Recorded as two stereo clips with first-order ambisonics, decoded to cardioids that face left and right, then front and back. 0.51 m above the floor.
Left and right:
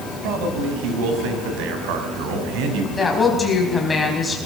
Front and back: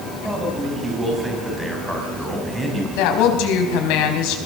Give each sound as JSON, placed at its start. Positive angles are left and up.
{"t": 0.2, "sound": "a man speaking", "azimuth_deg": -95, "distance_m": 4.5}
{"t": 3.0, "sound": "a woman speaking", "azimuth_deg": 10, "distance_m": 4.0}